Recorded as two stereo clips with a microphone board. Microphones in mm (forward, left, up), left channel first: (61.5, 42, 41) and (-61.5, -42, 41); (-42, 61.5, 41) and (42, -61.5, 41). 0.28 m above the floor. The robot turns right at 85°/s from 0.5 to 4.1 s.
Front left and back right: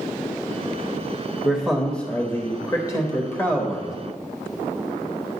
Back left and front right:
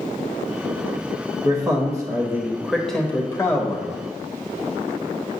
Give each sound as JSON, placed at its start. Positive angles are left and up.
{"t": 1.4, "sound": "a man speaking", "azimuth_deg": -80, "distance_m": 0.9}